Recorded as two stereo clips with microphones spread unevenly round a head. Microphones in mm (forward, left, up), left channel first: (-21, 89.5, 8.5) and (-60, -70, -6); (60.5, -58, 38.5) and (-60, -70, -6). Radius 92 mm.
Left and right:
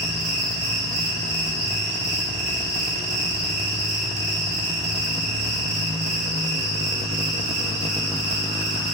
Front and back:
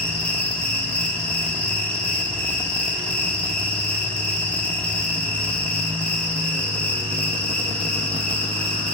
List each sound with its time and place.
0.0 s an insect: 85° right, 3 m